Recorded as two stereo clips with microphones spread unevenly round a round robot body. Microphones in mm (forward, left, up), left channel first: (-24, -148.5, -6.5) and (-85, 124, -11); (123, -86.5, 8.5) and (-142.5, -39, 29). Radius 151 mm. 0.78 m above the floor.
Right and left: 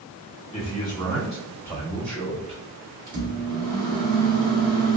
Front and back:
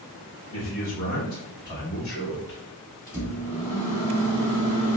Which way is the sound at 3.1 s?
70° left.